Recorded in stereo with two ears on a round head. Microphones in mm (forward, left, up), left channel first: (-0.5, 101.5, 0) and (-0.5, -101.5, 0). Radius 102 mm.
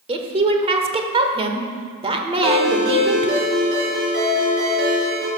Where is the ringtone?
45° right (ahead or behind), 4.5 m.